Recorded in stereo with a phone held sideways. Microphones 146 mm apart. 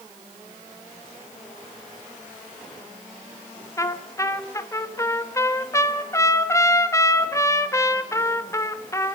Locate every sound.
3.8 s a trumpet: 20° left (ahead or behind), 1.5 m